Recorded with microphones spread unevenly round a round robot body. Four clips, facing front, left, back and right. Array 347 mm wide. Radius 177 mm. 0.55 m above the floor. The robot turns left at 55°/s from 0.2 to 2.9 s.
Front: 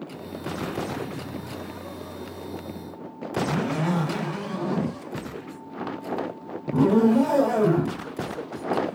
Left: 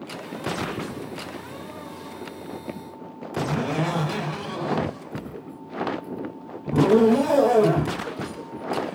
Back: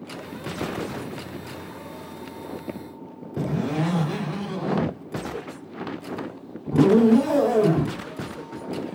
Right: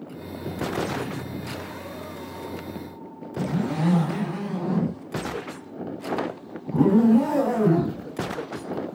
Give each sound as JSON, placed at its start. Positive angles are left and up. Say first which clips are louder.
{"t": 3.4, "sound": "a zipper", "louder": "left 1 dB, even", "azimuth_deg": 120, "distance_m": 4.5}